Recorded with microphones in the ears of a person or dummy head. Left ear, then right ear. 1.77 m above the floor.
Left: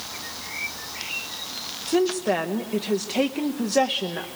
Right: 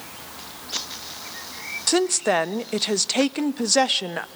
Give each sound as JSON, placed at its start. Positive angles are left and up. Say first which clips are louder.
{"t": 1.9, "sound": "a woman speaking", "louder": "right 2 dB", "side_deg": -65, "distance_m": 0.6}